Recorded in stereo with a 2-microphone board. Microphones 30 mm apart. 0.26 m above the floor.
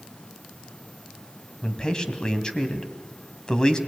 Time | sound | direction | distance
1.6 | a man speaking | 30° left (ahead or behind) | 1.9 m